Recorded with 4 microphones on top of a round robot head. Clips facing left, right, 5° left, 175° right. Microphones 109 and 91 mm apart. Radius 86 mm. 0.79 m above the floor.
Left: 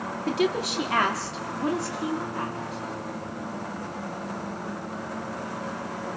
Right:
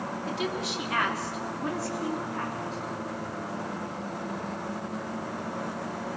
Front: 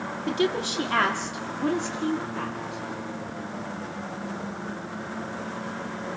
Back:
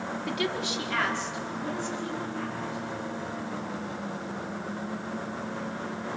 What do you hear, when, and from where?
0.3 s a woman speaking: 70° left, 1.7 m; by 2.8 s 10° left, 3 m